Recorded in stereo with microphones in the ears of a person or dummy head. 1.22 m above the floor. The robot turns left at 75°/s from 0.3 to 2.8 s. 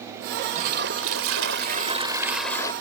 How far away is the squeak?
No squeak in this recording.